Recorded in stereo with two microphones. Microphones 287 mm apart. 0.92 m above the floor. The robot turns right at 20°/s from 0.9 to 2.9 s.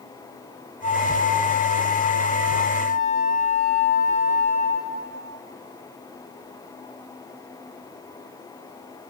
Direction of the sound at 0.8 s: 100° right.